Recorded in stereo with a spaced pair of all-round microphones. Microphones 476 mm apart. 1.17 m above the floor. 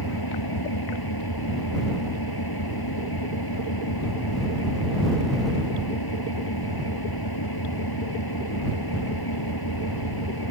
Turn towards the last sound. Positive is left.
turn(degrees=50)  # may be behind; listen again after turning